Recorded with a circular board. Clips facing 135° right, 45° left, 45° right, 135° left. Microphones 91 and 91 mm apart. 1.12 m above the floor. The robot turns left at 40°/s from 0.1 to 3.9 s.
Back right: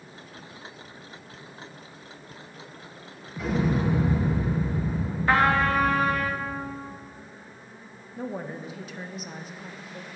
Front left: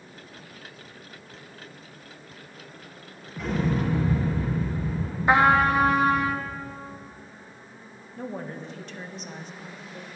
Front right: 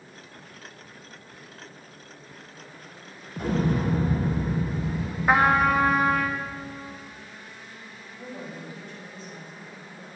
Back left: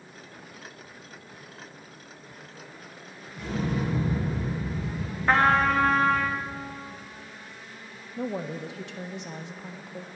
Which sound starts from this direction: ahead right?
An explosion, at 3.4 s.